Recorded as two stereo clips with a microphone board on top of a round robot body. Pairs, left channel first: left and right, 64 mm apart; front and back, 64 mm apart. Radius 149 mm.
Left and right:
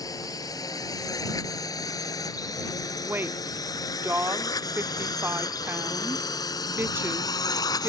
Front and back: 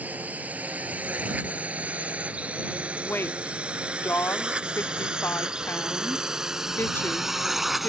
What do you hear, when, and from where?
0.0 s a drone: 115° left; by 7.9 s 95° left
3.0 s a woman speaking: 45° right